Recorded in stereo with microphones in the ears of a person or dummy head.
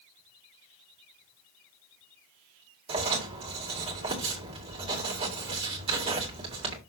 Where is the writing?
25° right (ahead or behind), 2.5 m.